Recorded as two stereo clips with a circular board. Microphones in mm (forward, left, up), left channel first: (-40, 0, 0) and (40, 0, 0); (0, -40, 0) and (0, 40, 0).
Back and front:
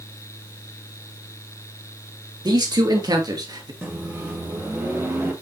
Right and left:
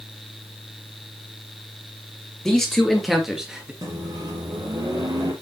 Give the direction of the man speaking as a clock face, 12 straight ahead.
12 o'clock.